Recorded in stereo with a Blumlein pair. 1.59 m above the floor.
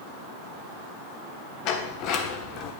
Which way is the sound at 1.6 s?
40° left.